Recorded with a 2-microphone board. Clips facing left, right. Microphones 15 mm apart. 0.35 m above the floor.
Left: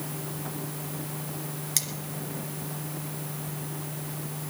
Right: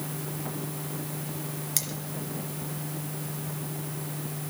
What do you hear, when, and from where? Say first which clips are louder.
1.8 s cutlery clinking: left 2 dB; 15° left (ahead or behind), 2.5 m